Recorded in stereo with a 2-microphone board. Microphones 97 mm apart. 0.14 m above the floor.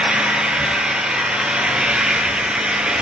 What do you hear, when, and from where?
0.0 s an engine running: 10° right (ahead or behind), 0.9 m